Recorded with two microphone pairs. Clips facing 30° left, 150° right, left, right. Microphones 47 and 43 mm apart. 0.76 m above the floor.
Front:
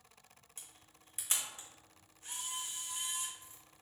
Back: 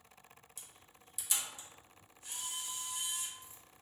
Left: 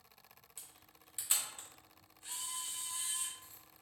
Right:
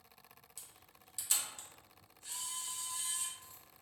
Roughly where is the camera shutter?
Ahead left.